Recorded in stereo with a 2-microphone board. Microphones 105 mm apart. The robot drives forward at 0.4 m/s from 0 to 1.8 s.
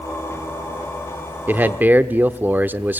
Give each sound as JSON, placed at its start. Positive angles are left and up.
{"t": 1.5, "sound": "a man speaking", "side_deg": -20, "distance_m": 0.7}